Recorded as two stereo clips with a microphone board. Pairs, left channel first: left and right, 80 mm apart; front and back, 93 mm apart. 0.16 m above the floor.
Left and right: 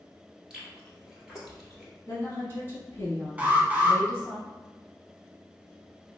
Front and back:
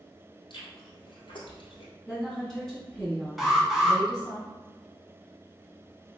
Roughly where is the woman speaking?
Left.